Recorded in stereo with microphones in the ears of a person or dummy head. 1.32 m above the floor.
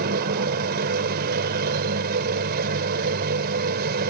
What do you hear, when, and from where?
0.0 s a machine running: 55° right (ahead or behind)